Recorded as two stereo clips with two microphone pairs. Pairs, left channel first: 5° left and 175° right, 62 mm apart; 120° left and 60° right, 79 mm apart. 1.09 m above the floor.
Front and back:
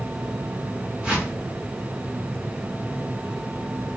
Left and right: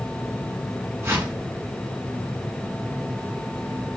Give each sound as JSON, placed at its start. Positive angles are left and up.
{"t": 1.0, "sound": "a whoosh", "azimuth_deg": -110, "distance_m": 1.0}